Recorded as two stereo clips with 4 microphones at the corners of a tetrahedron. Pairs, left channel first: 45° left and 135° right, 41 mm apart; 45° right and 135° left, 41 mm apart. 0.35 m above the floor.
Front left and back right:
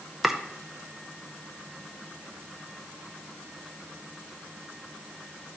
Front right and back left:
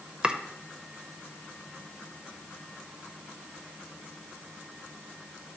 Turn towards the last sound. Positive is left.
turn(degrees=145)